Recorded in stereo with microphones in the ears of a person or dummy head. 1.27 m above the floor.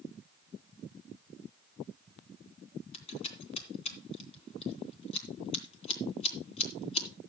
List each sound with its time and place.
2.9 s scissors: 40° left (ahead or behind), 3 m